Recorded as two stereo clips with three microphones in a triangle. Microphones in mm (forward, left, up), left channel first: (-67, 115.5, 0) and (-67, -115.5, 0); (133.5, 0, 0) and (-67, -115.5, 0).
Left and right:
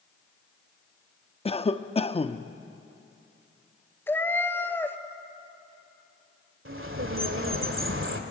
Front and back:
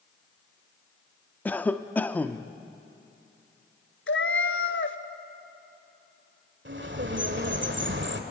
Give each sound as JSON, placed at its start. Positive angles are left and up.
{"t": 1.4, "sound": "a cough", "azimuth_deg": 105, "distance_m": 0.7}
{"t": 4.1, "sound": "a cat meowing", "azimuth_deg": 10, "distance_m": 0.9}
{"t": 6.7, "sound": "a bird", "azimuth_deg": -115, "distance_m": 1.9}